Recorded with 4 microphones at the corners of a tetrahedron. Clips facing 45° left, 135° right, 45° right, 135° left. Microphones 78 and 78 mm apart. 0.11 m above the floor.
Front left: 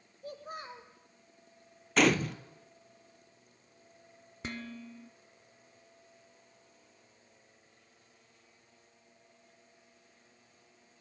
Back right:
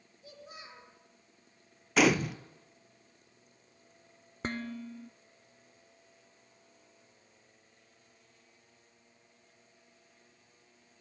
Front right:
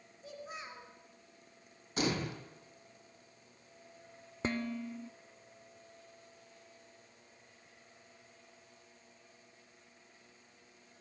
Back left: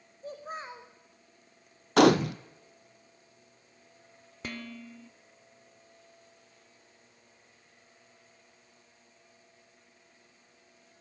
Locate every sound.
0.2 s a child speaking: 85° left, 3.5 m
2.0 s a gunshot: 140° left, 0.7 m
4.4 s dishes clattering: 100° right, 1.2 m